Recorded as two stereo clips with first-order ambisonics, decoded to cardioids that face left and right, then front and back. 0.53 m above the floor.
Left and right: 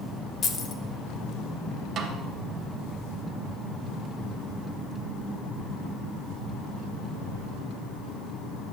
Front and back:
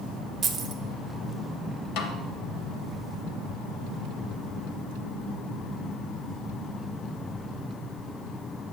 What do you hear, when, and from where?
0.4 s keys jangling: 125° left, 0.6 m
2.0 s a snare drum: 30° right, 0.8 m